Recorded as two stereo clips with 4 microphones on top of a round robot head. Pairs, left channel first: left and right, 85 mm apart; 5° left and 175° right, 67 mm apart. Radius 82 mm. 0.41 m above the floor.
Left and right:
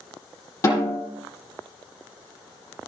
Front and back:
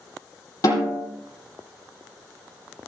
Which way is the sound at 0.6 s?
35° left.